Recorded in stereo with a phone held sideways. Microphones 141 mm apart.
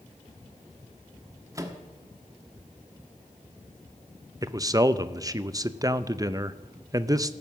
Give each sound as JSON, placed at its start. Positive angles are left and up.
{"t": 1.6, "sound": "a microwave", "side_deg": -25, "distance_m": 1.2}
{"t": 4.4, "sound": "a man speaking", "side_deg": -25, "distance_m": 0.5}